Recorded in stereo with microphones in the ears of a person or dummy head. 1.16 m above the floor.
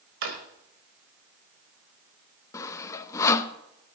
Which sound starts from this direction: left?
Sawing, at 2.5 s.